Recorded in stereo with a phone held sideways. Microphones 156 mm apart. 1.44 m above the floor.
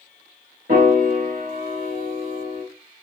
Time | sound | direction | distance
0.7 | a piano | 75° right (ahead or behind) | 1.8 m